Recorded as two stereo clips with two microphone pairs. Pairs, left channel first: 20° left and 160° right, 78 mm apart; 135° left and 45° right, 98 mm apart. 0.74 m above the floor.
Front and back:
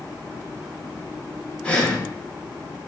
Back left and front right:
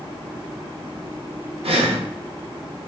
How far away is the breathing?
About 0.8 m.